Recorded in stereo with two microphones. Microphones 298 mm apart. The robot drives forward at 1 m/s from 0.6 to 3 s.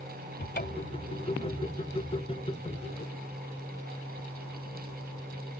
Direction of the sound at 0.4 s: 35° left (ahead or behind).